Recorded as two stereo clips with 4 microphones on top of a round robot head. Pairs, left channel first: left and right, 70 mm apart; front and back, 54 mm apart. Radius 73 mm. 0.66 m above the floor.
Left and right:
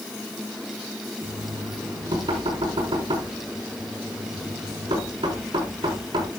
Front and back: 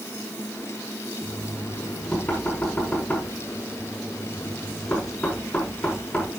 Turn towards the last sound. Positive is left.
turn(degrees=-75)